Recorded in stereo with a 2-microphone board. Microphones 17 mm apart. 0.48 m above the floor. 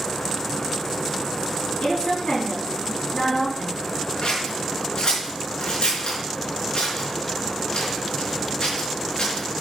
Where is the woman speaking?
80° left, 5.5 m; by 3.8 s 75° left (ahead or behind), 6 m.